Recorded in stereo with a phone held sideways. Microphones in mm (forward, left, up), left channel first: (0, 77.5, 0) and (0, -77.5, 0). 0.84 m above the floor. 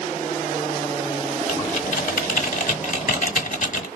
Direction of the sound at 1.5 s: 55° left (ahead or behind).